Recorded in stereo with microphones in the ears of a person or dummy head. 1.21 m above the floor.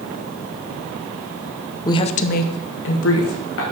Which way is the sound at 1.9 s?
20° left (ahead or behind).